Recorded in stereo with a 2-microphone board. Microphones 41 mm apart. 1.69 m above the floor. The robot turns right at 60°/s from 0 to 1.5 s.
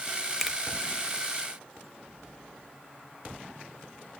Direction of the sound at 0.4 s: 5° right (ahead or behind).